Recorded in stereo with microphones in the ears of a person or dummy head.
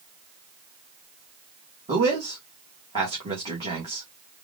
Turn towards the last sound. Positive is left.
turn(degrees=-30)  # may be behind; listen again after turning